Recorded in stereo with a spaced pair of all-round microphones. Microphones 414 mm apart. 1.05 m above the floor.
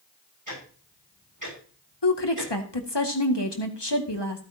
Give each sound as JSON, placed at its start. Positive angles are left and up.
{"t": 0.5, "sound": "ticking", "side_deg": -50, "distance_m": 6.0}
{"t": 2.0, "sound": "a woman speaking", "side_deg": 80, "distance_m": 2.0}